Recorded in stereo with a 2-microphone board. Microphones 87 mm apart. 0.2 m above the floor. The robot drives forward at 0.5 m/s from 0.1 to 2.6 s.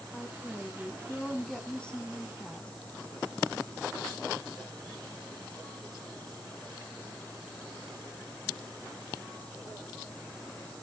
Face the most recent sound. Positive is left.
turn(degrees=10)  # may be behind; listen again after turning